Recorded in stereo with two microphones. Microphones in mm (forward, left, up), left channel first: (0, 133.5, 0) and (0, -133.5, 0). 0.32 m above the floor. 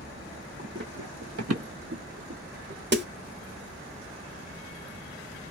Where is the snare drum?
40° right (ahead or behind), 0.9 m.